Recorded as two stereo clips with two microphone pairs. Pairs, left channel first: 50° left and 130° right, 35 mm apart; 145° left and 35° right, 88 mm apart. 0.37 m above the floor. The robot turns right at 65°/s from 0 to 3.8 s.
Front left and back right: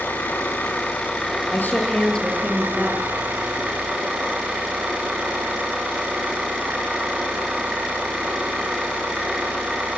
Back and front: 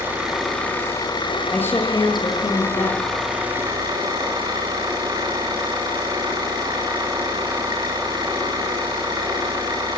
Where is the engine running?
30° left, 10 m; by 10.0 s 85° right, 10 m.